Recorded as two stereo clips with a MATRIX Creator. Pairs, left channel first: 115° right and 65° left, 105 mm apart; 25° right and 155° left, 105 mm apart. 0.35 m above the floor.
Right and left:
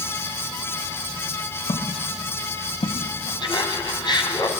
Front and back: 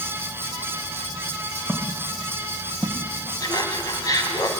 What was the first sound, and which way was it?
Footsteps, 120° right.